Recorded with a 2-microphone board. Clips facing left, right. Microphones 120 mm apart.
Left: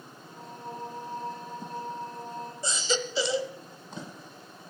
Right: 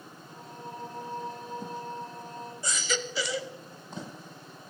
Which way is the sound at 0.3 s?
35° left (ahead or behind).